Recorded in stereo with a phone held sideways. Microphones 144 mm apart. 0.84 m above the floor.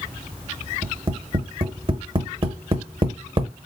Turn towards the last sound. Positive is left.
turn(degrees=-35)  # may be behind; listen again after turning